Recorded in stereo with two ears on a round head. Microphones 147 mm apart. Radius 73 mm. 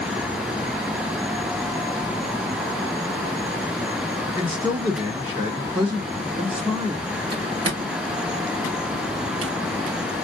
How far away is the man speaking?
About 1.3 m.